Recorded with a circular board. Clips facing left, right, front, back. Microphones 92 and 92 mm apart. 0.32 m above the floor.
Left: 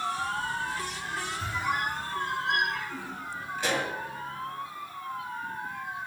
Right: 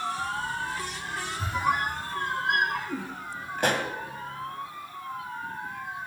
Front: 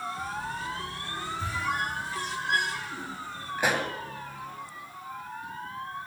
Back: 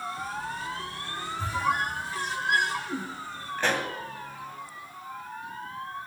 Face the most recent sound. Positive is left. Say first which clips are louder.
# right 3 dB, even
turn(degrees=-75)